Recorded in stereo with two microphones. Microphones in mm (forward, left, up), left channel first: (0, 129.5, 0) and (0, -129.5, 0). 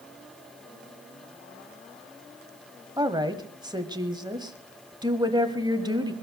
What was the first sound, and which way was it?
A woman speaking, 15° right (ahead or behind).